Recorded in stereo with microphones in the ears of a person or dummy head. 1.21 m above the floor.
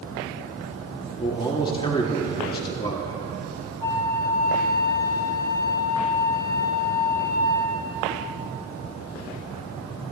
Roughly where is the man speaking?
Left.